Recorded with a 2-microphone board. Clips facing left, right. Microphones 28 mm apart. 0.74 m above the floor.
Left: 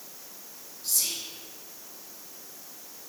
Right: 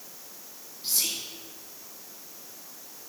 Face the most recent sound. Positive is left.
turn(degrees=-35)  # may be behind; listen again after turning